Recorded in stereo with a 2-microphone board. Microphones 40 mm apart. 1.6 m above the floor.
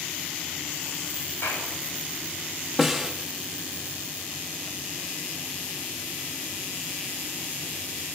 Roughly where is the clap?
Left.